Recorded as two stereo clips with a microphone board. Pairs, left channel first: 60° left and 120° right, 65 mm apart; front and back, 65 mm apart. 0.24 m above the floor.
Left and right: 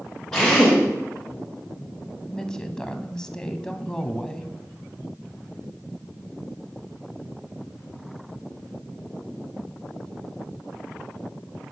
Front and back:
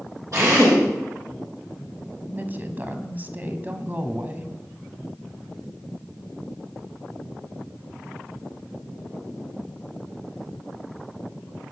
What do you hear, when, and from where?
0.3 s a drill: 140° left, 10 m
2.3 s a woman speaking: 135° left, 1.6 m